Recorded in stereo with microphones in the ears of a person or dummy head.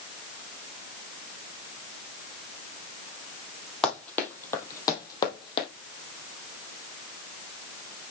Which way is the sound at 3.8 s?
5° left (ahead or behind).